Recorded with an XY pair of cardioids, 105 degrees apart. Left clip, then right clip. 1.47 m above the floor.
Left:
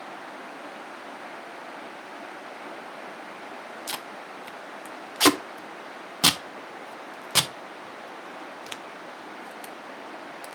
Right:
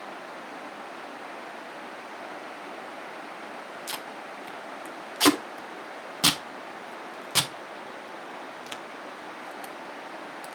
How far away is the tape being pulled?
About 0.9 m.